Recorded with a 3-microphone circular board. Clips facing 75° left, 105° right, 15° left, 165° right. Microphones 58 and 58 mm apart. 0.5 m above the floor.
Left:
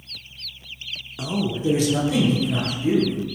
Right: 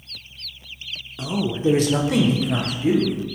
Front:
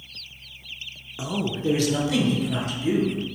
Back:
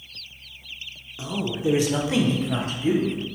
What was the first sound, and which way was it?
A man speaking, 10° left.